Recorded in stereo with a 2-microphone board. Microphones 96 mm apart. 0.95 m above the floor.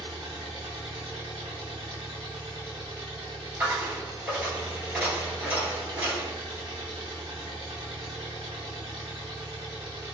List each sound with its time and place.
0.0 s an engine running: 60° right (ahead or behind), 1.4 m
3.6 s a dropped coin: 20° right (ahead or behind), 1.6 m